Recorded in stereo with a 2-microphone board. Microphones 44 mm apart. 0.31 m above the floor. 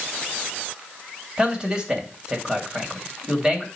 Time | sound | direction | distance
1.4 | a man speaking | 20° right (ahead or behind) | 2.0 m